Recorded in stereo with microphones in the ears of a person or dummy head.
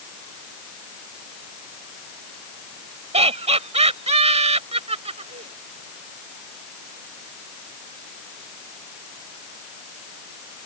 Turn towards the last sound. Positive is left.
turn(degrees=-35)  # may be behind; listen again after turning